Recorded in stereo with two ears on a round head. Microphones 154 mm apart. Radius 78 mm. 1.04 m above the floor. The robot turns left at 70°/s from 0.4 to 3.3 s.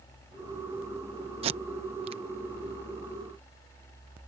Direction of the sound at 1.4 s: 35° right (ahead or behind).